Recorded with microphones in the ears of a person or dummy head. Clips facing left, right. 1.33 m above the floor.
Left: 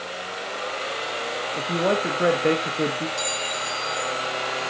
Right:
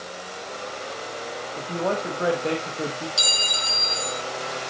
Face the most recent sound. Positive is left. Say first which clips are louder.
# left 2 dB
turn(degrees=-35)  # may be behind; listen again after turning